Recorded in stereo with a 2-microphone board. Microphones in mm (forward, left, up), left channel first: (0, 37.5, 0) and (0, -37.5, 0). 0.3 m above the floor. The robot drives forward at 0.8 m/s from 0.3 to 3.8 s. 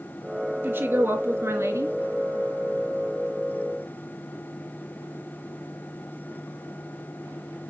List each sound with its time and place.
0.6 s a woman speaking: 25° right (ahead or behind), 3 m; by 2.0 s 40° right (ahead or behind), 2.0 m